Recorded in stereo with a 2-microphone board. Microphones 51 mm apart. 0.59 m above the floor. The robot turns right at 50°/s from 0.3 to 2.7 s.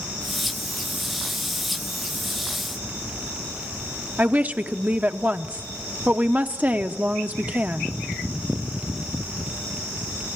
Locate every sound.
4.2 s a woman speaking: 30° right (ahead or behind), 0.8 m